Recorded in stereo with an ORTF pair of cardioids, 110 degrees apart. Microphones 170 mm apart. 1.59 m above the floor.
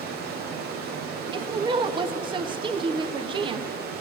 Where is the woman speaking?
30° right, 0.7 m.